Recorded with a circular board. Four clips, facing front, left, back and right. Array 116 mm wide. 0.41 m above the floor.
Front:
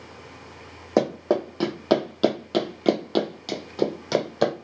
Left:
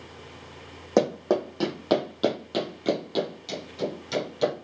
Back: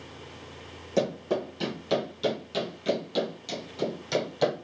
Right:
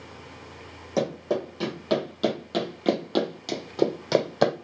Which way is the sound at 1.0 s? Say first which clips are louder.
Left 4 dB, front 5 dB; 40° left.